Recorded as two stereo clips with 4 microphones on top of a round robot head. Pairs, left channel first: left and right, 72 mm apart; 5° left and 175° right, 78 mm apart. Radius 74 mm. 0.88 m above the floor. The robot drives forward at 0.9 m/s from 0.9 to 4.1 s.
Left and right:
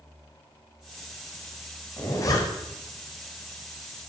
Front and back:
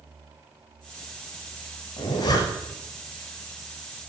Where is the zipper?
40° left, 2.5 m; by 2.8 s 55° left, 2 m.